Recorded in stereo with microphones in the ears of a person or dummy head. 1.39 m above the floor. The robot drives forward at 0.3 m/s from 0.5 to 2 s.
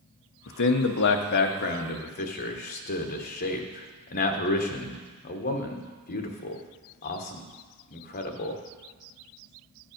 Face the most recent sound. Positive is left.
turn(degrees=45)  # may be behind; listen again after turning